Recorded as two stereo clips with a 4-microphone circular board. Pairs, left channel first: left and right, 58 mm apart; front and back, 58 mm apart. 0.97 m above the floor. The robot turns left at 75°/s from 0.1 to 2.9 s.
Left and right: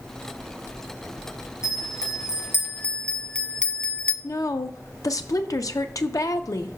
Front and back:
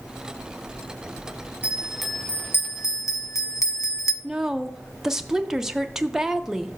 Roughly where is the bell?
Behind left.